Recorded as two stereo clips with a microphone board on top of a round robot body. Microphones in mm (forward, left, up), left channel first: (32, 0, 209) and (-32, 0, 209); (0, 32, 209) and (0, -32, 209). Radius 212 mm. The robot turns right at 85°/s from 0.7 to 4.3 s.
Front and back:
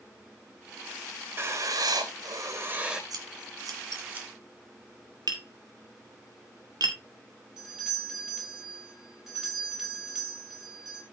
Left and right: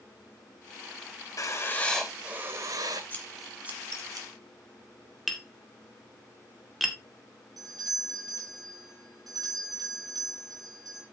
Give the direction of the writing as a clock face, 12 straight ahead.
8 o'clock.